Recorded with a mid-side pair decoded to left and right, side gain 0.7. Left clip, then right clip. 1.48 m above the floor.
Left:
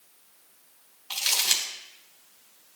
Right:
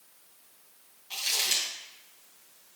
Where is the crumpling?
50° left, 2.5 m.